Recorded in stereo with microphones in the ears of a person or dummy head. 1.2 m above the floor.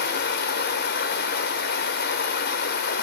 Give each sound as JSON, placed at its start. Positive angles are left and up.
{"t": 0.0, "sound": "running water", "side_deg": 45, "distance_m": 1.2}